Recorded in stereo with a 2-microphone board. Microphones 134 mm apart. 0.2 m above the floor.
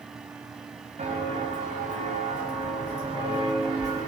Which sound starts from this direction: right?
Footsteps, at 1.0 s.